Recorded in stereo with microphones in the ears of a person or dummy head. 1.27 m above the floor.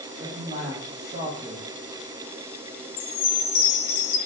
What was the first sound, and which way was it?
A man speaking, 25° right (ahead or behind).